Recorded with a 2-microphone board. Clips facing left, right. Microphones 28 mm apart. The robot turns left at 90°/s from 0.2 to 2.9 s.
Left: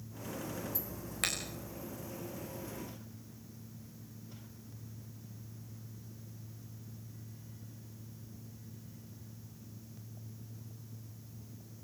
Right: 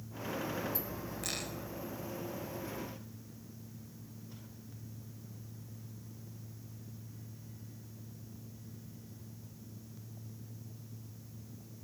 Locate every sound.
1.2 s a finger snap: 70° left (ahead or behind), 8 m; by 1.3 s 60° left (ahead or behind), 8 m